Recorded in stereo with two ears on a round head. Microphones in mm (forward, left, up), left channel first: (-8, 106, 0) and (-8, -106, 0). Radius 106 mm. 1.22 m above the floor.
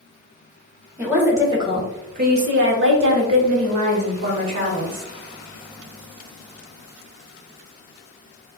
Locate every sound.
1.0 s a woman speaking: 5° right (ahead or behind), 1.3 m; by 5.1 s 60° right (ahead or behind), 1.9 m